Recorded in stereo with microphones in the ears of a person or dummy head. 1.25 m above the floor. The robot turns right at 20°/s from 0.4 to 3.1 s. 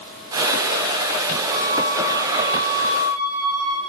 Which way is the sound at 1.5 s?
65° right.